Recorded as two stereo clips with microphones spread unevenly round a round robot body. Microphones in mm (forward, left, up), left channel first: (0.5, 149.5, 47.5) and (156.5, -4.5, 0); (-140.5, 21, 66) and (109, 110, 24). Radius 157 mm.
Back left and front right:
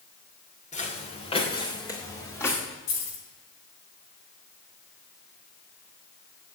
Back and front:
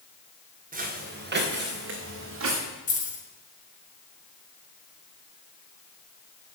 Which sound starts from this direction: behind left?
Keys jangling, at 2.9 s.